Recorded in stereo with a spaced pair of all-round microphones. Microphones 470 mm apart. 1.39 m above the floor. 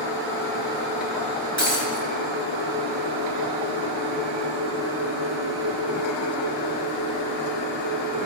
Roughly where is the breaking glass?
Right.